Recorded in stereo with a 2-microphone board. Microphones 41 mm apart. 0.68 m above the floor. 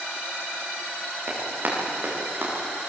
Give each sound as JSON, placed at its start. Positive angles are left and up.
{"t": 1.3, "sound": "running footsteps", "side_deg": -45, "distance_m": 10.0}